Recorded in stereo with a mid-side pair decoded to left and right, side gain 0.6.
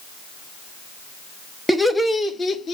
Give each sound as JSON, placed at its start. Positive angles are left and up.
{"t": 1.7, "sound": "laughter", "azimuth_deg": 0, "distance_m": 1.6}